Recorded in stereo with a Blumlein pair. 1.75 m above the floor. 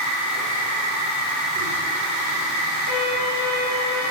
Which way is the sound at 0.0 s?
40° right.